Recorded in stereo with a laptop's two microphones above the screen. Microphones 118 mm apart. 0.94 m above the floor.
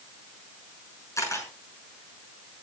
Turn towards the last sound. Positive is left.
turn(degrees=25)  # may be behind; listen again after turning